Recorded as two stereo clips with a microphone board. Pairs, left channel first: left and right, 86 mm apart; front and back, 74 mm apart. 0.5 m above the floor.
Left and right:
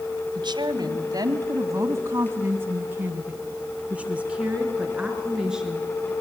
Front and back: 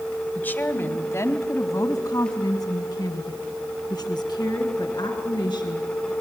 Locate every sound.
0.3 s a woman speaking: 65° right, 2.5 m; by 6.1 s 5° right, 6.5 m